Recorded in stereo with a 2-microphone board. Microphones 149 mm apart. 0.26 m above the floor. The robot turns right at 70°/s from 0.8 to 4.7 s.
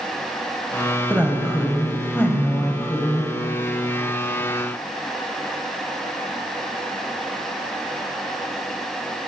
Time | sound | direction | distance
1.1 | a woman speaking | 15° right (ahead or behind) | 1.0 m